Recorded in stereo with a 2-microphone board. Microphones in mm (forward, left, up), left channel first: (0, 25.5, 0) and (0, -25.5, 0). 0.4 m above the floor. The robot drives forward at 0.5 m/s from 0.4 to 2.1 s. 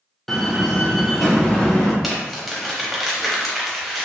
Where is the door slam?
5° left (ahead or behind), 0.5 m; by 1.9 s centre (ahead or behind), 1.1 m.